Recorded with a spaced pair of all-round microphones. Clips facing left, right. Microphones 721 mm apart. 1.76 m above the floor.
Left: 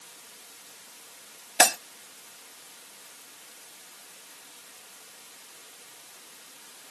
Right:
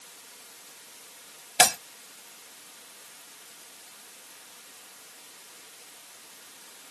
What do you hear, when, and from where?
1.6 s breaking glass: 35° right (ahead or behind)